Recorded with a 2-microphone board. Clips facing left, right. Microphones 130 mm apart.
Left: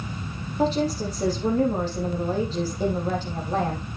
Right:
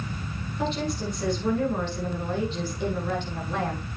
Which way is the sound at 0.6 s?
40° left (ahead or behind).